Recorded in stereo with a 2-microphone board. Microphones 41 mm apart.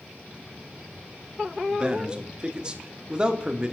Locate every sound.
1.7 s a man speaking: 20° right (ahead or behind), 0.9 m